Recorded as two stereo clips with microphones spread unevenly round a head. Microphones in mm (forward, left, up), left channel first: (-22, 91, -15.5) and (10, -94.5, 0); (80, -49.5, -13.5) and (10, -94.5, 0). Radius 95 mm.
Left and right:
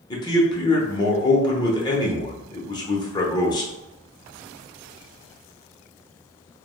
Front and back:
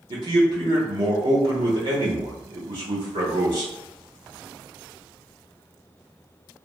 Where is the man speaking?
170° left, 0.7 m.